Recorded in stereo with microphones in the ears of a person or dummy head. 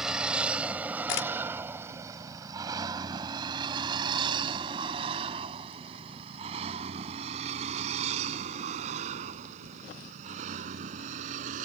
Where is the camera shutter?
65° left (ahead or behind).